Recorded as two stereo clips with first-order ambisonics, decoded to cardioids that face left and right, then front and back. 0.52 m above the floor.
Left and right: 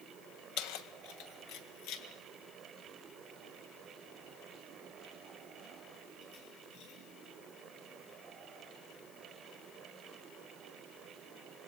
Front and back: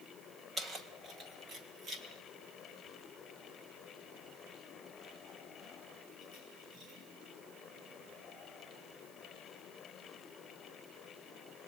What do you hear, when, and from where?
0.6 s keys jangling: 110° left, 2 m; by 7.0 s 125° left, 9.5 m